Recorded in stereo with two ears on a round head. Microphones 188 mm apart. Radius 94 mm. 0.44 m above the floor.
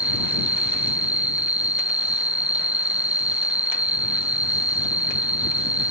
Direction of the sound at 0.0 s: 5° right (ahead or behind).